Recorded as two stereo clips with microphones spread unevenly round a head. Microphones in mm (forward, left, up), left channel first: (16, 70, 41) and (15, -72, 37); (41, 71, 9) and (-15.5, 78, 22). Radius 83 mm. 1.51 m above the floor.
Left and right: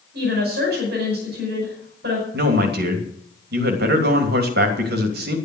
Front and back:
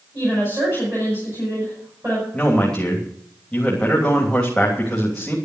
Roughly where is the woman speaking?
Right.